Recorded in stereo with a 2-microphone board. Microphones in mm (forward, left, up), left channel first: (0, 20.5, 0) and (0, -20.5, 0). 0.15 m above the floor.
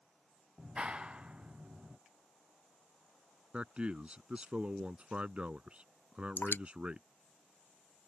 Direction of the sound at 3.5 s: 30° right (ahead or behind).